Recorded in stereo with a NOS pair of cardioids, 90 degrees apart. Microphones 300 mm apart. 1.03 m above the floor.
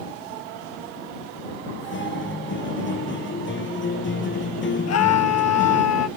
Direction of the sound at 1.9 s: 40° left.